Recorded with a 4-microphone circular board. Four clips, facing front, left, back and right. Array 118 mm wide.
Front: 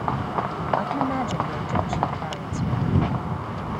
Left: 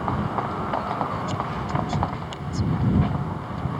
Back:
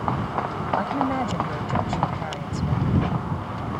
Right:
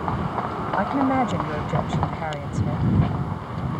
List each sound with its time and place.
0.8 s a woman speaking: 95° right